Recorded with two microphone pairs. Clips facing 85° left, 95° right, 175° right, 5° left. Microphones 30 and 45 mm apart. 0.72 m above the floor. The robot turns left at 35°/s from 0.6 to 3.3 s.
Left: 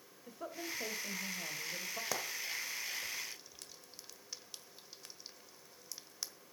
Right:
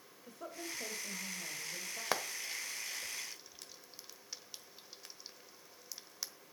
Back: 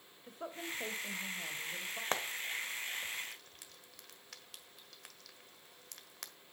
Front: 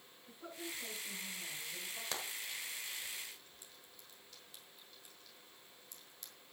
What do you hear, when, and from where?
0.3 s a woman speaking: 170° left, 3 m; by 2.0 s 120° left, 3 m
2.1 s frying: 130° right, 1.3 m; by 6.3 s 175° right, 1.3 m